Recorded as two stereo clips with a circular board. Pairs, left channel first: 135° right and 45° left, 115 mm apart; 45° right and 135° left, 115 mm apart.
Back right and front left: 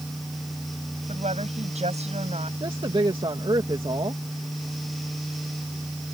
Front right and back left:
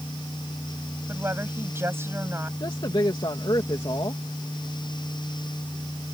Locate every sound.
1.1 s a woman speaking: 65° left
2.6 s a woman speaking: 5° left